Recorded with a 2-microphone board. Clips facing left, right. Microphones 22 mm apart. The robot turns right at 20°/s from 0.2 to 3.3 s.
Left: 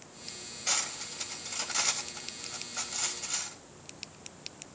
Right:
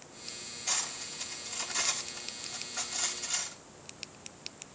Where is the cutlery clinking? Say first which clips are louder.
Left 2 dB; 50° left (ahead or behind), 4.5 m; by 3.6 s 5° right (ahead or behind), 4.5 m.